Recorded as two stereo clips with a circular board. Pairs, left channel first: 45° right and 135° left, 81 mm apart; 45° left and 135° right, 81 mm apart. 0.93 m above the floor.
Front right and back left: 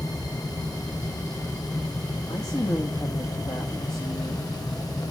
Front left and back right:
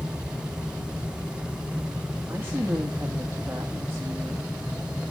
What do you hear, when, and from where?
2.3 s a woman speaking: 75° right, 2.0 m